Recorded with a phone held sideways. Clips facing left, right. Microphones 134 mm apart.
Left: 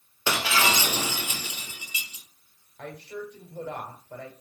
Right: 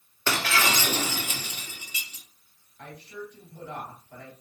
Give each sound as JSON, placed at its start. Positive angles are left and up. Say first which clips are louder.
{"t": 0.3, "sound": "breaking glass", "louder": "left 1 dB", "side_deg": 10, "distance_m": 2.5}
{"t": 2.8, "sound": "a woman speaking", "louder": "left 3 dB", "side_deg": 70, "distance_m": 2.5}